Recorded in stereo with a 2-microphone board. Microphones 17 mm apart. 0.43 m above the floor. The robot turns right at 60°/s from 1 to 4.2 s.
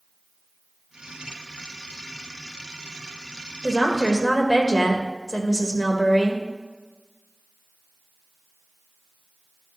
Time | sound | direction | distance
3.6 | a woman speaking | 10° left | 1.3 m